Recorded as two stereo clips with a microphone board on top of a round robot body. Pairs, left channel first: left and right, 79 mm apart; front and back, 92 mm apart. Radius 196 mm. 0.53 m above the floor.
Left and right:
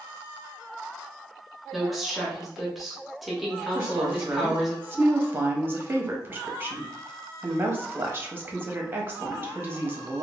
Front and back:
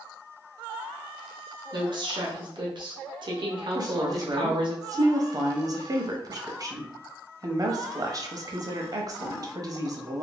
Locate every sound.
1.7 s a woman speaking: 175° right, 0.9 m
3.8 s a woman speaking: 145° right, 0.9 m